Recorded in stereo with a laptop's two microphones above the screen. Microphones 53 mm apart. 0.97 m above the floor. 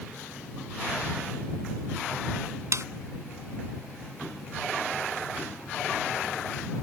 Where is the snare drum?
65° right (ahead or behind).